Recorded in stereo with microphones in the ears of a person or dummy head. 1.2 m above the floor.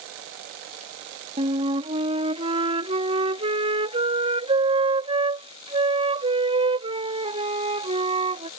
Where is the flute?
25° right (ahead or behind).